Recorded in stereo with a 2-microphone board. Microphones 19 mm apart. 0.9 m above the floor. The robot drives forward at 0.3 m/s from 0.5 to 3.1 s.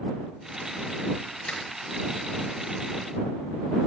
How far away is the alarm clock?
I don't hear an alarm clock.